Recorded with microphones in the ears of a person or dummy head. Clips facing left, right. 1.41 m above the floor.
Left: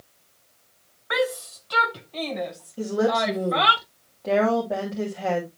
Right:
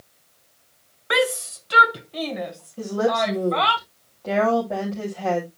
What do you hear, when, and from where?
1.1 s a shout: 45° right (ahead or behind), 0.9 m; by 3.8 s 15° left (ahead or behind), 1.7 m
2.8 s a woman speaking: 5° left (ahead or behind), 3 m